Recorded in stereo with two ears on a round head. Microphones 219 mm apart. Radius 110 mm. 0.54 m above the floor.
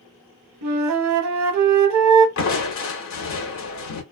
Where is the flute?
80° right, 0.6 m.